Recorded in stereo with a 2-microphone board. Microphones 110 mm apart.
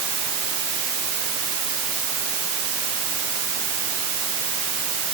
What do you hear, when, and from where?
Only background noise.